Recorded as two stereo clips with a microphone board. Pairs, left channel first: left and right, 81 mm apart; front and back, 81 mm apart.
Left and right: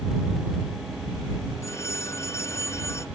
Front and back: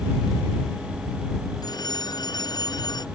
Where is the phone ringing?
35° left.